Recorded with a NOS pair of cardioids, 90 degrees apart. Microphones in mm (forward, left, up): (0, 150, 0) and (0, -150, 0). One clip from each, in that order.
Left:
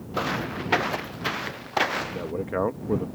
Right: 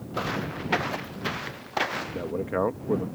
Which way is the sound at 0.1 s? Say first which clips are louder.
Left 3 dB; 20° left.